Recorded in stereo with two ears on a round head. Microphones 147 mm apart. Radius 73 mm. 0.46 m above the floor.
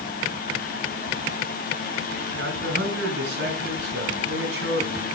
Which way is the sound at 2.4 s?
75° right (ahead or behind).